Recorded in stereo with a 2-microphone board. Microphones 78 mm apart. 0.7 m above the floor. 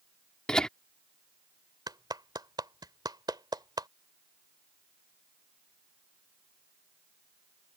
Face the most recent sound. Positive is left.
turn(degrees=-65)  # may be behind; listen again after turning